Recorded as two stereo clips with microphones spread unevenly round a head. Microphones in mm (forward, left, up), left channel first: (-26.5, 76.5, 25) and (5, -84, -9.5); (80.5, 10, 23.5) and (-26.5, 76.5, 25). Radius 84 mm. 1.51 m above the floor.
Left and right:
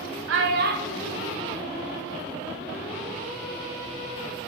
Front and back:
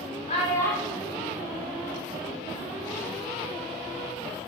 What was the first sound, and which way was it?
A child speaking, 80° right.